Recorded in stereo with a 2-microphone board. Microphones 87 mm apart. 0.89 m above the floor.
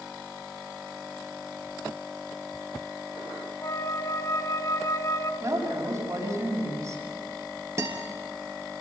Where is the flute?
40° left (ahead or behind), 1.2 m.